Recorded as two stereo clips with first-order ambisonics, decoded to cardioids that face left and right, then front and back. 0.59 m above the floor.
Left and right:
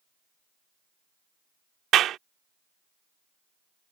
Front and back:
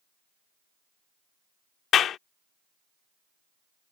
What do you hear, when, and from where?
1.9 s a clap: 45° right